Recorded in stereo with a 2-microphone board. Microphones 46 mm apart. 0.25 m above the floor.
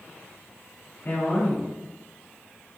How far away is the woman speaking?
About 1.3 m.